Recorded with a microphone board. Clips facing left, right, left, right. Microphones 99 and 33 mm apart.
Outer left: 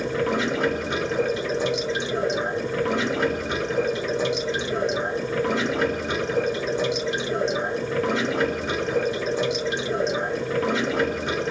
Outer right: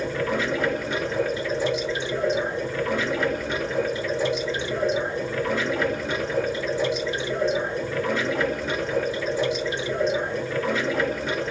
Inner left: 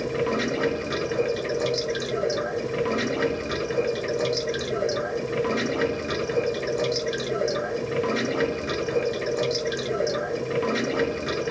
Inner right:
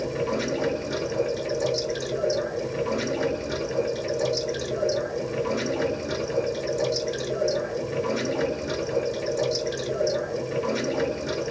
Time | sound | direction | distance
0.0 | running water | 70° left (ahead or behind) | 1.1 m